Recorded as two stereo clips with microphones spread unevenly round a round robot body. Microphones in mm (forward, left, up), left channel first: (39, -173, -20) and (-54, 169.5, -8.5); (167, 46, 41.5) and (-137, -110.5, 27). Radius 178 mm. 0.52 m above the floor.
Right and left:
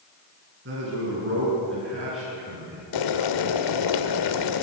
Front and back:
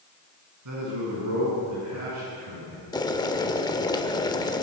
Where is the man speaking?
165° left, 7 m; by 2.8 s 160° left, 9 m.